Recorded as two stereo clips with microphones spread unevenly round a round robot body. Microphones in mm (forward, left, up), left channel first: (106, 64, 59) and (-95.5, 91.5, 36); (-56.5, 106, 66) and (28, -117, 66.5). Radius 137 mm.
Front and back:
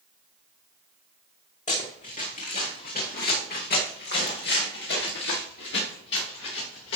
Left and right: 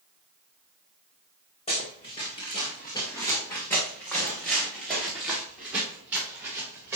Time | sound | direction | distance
1.7 | running footsteps | 45° left | 4.5 m